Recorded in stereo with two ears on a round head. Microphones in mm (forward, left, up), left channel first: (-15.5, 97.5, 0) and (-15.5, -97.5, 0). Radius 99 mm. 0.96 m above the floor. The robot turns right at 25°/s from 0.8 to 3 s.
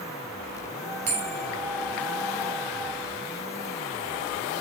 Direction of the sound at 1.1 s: 30° right (ahead or behind).